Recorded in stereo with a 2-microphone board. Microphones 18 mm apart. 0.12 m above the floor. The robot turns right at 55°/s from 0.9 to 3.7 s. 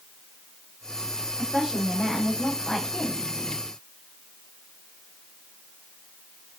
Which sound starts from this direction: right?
A woman speaking, at 1.4 s.